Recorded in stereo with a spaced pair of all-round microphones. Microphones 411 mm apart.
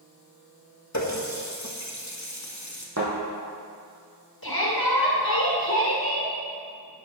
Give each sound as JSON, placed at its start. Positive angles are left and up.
{"t": 0.9, "sound": "a running tap", "side_deg": 40, "distance_m": 1.3}
{"t": 3.0, "sound": "a thud", "side_deg": -40, "distance_m": 4.0}
{"t": 4.4, "sound": "a shout", "side_deg": 60, "distance_m": 2.0}